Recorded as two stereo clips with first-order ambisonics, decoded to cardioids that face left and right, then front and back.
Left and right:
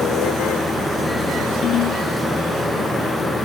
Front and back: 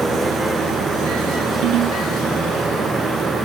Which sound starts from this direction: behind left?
A ringtone, at 1.6 s.